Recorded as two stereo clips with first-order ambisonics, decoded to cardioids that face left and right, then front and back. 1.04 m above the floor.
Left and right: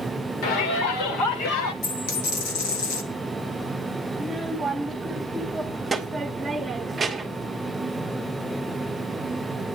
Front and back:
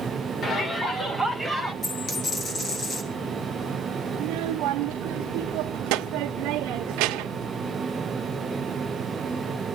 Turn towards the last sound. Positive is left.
turn(degrees=-165)